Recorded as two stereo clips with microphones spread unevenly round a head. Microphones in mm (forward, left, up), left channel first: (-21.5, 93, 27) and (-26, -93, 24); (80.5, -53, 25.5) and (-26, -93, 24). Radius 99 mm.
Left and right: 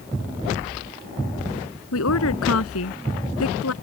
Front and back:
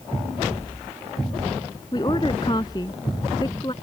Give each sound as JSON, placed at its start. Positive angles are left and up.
{"t": 1.9, "sound": "a woman speaking", "azimuth_deg": 90}